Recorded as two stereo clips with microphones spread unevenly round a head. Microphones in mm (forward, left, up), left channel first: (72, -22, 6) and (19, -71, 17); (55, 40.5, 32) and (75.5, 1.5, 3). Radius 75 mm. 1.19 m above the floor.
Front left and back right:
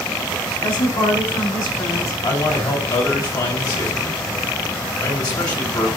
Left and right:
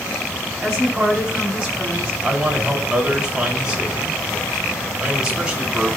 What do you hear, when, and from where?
0.6 s a woman speaking: 15° left, 8.5 m
2.2 s a man speaking: 15° left, 5.5 m